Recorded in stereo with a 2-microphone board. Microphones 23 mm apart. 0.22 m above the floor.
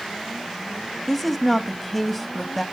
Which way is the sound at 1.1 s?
5° left (ahead or behind).